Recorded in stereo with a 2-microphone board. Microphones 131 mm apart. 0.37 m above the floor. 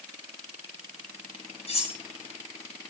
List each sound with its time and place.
1.7 s cutlery clinking: 50° left (ahead or behind), 4 m